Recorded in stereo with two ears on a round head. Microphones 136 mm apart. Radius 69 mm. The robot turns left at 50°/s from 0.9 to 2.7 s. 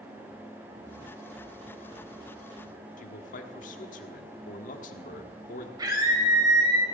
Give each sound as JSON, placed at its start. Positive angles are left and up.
{"t": 3.0, "sound": "a man speaking", "side_deg": 55, "distance_m": 1.4}
{"t": 5.8, "sound": "a scream", "side_deg": -25, "distance_m": 4.5}